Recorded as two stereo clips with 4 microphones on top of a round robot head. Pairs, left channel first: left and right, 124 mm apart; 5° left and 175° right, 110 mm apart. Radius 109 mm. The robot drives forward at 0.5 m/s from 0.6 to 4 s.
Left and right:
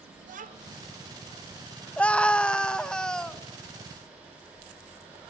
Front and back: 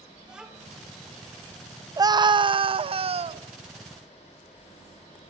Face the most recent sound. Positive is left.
turn(degrees=175)